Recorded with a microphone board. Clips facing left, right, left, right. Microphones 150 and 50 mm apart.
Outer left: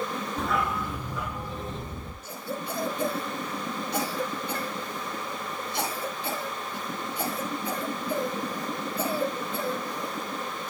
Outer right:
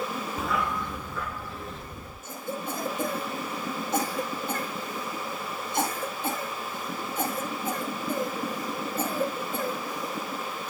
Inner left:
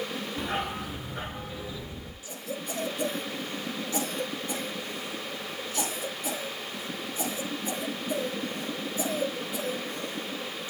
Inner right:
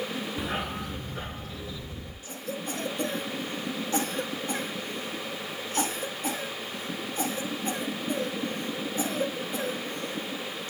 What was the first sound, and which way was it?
A dog barking, 5° right (ahead or behind).